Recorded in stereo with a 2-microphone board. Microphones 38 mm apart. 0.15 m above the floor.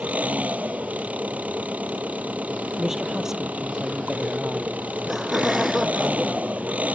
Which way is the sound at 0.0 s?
40° right (ahead or behind).